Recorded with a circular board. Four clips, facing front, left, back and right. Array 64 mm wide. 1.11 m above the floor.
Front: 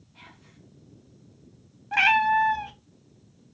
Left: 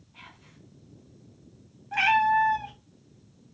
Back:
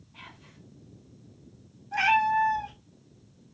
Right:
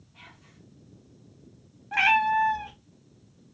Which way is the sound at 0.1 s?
150° left.